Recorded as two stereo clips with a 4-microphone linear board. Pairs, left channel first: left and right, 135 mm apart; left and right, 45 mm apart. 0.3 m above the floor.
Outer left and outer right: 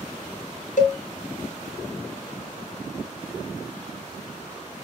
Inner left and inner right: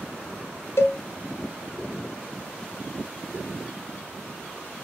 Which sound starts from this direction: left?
A cowbell, at 0.8 s.